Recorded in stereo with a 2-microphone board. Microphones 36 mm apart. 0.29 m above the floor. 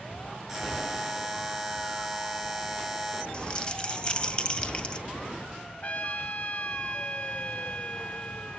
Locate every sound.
0.5 s a buzzer: 10° right (ahead or behind), 3.5 m
3.3 s crumpling: 25° left (ahead or behind), 1.9 m
5.8 s a trumpet: 40° left (ahead or behind), 2 m